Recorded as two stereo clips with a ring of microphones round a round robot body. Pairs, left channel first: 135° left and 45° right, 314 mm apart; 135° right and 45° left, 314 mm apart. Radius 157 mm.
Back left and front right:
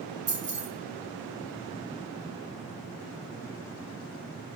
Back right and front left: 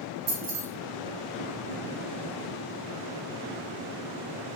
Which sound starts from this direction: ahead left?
Keys jangling, at 0.3 s.